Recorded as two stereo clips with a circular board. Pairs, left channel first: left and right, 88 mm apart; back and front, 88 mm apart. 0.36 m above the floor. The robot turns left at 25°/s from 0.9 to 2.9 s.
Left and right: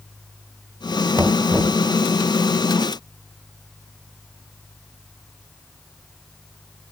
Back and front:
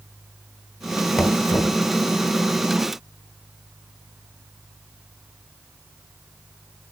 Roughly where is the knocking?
Behind right.